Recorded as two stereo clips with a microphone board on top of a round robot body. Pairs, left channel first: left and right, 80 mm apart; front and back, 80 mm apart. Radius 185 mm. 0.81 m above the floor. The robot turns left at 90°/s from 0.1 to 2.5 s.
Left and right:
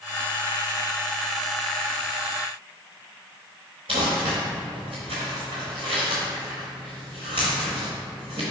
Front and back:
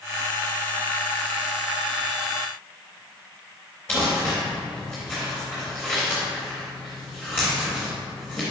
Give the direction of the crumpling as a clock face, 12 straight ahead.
2 o'clock.